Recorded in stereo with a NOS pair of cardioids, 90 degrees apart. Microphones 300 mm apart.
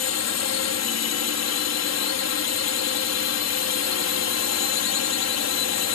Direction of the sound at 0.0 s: 60° left.